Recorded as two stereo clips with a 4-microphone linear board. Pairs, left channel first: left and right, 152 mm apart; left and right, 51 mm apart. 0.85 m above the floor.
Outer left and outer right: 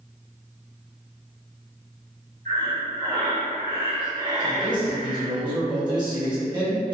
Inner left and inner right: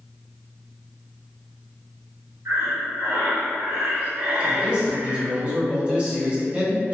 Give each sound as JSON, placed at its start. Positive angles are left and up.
{"t": 2.5, "sound": "breathing", "side_deg": -65, "distance_m": 1.6}
{"t": 4.4, "sound": "a man speaking", "side_deg": -30, "distance_m": 1.3}